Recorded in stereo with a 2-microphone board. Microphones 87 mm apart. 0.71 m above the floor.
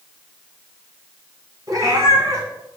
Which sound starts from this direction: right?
A cat meowing, at 1.7 s.